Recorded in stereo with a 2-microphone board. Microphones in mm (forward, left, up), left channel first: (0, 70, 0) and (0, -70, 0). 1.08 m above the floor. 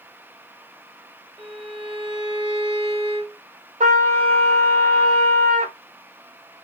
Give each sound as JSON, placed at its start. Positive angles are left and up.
{"t": 1.4, "sound": "a violin", "side_deg": -40, "distance_m": 0.6}
{"t": 3.8, "sound": "a trumpet", "side_deg": -55, "distance_m": 1.1}